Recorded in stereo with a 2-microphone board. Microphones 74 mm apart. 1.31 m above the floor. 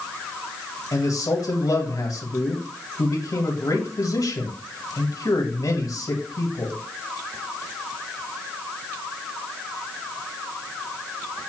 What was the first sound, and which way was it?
A man speaking, 60° left (ahead or behind).